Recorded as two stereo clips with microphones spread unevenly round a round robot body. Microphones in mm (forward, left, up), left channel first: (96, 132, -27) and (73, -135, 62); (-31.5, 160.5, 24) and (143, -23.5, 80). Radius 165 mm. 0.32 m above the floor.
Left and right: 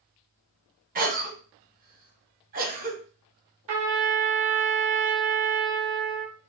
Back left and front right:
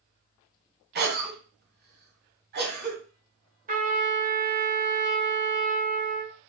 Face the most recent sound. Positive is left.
turn(degrees=-105)